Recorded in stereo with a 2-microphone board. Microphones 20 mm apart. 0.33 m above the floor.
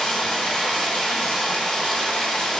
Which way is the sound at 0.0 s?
55° left (ahead or behind).